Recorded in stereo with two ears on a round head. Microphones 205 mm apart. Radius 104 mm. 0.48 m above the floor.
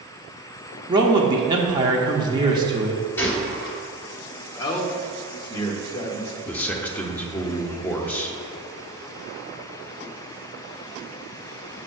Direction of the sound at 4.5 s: 20° left (ahead or behind).